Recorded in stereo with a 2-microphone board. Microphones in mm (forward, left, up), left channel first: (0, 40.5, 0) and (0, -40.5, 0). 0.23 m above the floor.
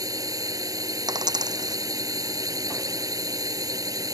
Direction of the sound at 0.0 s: 50° right (ahead or behind).